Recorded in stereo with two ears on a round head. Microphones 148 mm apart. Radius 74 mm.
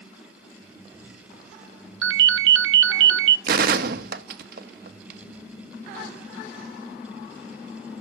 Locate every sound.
2.0 s a ringtone: 85° right, 0.7 m
3.5 s a gunshot: 60° right (ahead or behind), 1.3 m